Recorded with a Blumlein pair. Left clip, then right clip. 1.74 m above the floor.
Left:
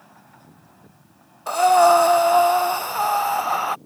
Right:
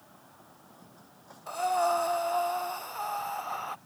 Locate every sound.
1.5 s breathing: 55° left